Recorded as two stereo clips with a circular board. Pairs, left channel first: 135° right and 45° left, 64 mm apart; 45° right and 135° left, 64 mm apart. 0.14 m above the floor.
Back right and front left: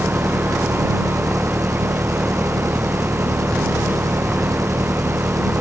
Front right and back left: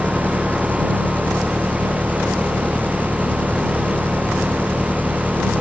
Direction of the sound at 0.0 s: 25° left.